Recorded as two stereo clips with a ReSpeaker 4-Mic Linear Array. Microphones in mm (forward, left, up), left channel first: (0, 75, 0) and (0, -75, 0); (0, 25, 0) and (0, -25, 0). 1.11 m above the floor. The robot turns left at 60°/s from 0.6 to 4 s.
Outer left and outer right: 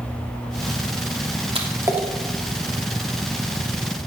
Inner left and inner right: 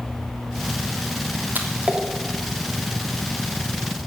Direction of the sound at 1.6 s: 40° right (ahead or behind).